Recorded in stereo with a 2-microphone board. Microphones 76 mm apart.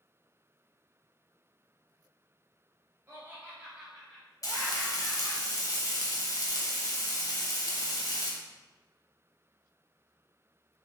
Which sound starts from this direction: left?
Frying, at 4.4 s.